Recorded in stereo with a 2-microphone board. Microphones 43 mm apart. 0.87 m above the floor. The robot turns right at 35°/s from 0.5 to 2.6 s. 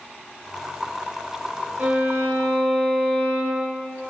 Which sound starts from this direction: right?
A violin, at 1.8 s.